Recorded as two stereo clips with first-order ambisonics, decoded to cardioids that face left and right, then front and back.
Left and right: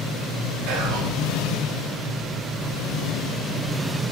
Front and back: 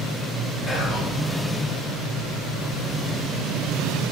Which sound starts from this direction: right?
Whispering, at 0.7 s.